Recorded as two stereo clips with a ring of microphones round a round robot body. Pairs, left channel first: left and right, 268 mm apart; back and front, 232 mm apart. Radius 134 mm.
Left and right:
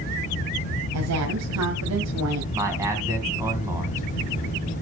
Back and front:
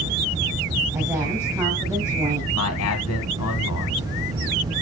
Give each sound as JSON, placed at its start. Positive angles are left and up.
{"t": 0.9, "sound": "a woman speaking", "azimuth_deg": -80, "distance_m": 1.9}
{"t": 2.5, "sound": "a man speaking", "azimuth_deg": -170, "distance_m": 2.0}